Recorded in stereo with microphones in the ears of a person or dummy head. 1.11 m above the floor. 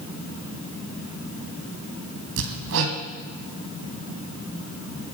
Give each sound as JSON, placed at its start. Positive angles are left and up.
{"t": 2.4, "sound": "hammering", "side_deg": -70, "distance_m": 2.0}